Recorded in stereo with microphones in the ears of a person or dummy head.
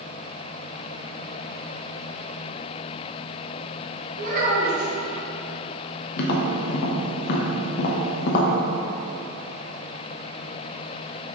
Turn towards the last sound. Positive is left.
turn(degrees=55)  # may be behind; listen again after turning